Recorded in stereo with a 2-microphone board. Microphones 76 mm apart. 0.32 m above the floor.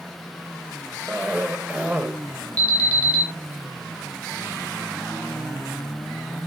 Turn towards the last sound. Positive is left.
turn(degrees=20)  # may be behind; listen again after turning